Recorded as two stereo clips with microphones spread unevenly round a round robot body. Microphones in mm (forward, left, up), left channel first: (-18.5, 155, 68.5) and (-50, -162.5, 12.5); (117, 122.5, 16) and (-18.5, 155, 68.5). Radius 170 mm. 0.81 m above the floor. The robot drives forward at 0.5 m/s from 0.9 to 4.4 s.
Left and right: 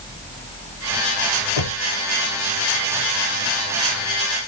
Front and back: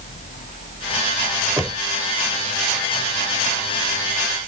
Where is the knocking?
85° left; by 1.9 s 90° left.